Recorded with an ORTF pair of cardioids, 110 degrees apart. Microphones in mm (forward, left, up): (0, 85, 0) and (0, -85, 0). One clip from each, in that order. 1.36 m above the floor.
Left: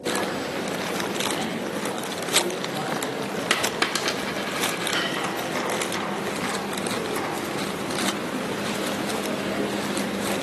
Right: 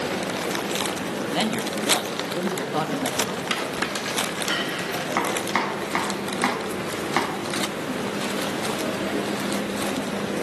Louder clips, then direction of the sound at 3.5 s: Left 3 dB; 30° left.